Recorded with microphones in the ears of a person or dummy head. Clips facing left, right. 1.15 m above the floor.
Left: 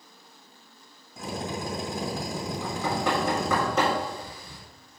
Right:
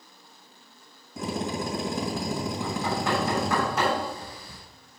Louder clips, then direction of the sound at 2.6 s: Left 3 dB; 75° left (ahead or behind).